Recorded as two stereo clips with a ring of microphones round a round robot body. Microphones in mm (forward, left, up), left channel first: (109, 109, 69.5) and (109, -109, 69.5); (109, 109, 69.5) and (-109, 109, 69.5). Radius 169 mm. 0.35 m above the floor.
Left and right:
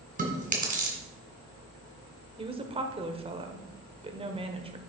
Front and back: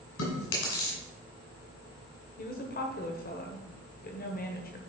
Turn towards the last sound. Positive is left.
turn(degrees=-30)